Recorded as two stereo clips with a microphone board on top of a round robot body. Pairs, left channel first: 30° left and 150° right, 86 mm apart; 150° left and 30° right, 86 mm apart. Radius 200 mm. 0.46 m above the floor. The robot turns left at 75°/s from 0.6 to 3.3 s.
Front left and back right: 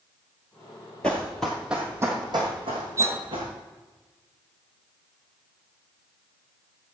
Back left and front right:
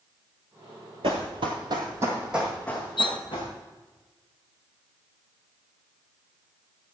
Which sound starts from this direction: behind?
Cutlery clinking, at 3.0 s.